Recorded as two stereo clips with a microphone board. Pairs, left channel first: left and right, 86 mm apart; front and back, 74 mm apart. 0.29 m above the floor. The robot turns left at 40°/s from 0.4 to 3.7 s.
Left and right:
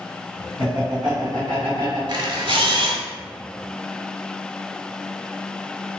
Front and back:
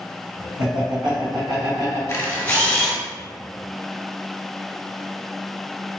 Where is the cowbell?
No cowbell in this recording.